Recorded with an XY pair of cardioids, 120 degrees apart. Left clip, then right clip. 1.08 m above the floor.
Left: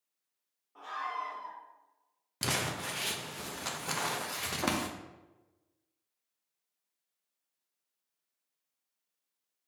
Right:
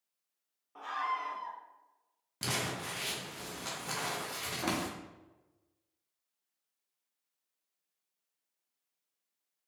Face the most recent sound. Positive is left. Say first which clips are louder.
# left 2 dB
turn(degrees=25)